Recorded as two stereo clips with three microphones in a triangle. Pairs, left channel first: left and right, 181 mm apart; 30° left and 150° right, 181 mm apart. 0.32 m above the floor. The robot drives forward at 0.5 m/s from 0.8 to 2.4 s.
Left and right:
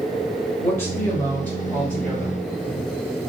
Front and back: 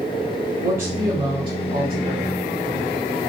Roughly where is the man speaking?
Behind left.